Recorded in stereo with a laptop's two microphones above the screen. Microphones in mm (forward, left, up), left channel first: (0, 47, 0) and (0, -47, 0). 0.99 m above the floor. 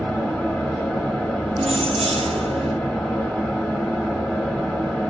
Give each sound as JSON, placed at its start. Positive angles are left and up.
{"t": 0.0, "sound": "a fan", "side_deg": 10, "distance_m": 1.2}
{"t": 1.6, "sound": "keys jangling", "side_deg": -75, "distance_m": 0.6}